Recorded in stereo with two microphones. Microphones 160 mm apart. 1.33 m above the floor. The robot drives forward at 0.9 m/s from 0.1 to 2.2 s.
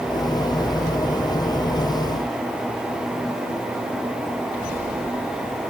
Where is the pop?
I don't hear a pop.